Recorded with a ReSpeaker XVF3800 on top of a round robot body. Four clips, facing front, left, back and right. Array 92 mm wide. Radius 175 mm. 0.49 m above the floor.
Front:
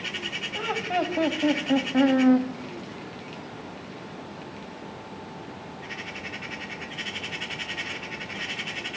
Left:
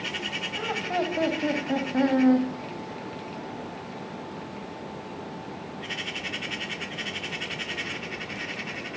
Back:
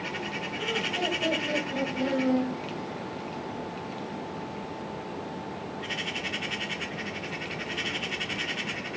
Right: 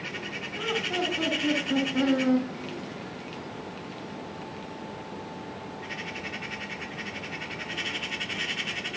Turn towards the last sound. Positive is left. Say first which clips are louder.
# left 1 dB, front 5 dB
turn(degrees=35)